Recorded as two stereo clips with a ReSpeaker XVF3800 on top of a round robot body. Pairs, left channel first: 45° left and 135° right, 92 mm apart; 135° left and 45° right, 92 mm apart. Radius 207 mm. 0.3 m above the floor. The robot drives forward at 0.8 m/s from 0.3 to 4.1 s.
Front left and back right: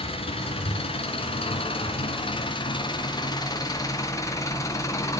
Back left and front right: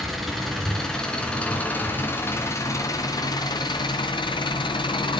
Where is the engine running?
45° left, 3.5 m; by 5.2 s 100° left, 2.5 m.